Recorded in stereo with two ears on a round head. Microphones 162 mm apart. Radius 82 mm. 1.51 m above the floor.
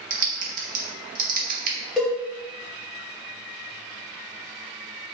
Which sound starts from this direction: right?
Typing on a keyboard, at 0.1 s.